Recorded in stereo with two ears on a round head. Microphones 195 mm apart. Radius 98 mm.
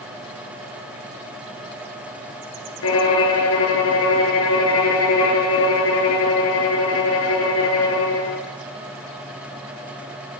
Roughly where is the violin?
Left.